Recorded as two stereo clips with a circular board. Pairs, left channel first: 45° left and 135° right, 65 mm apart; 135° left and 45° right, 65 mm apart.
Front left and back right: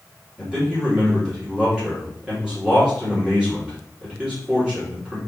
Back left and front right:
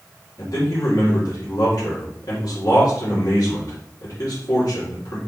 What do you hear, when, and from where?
0.4 s a man speaking: 150° left, 4 m